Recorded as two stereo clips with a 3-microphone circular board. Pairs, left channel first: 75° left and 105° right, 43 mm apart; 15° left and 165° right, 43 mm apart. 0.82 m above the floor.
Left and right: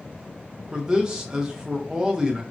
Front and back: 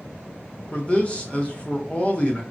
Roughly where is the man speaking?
Ahead right.